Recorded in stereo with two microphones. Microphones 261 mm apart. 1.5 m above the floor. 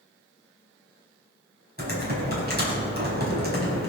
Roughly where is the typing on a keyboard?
Right.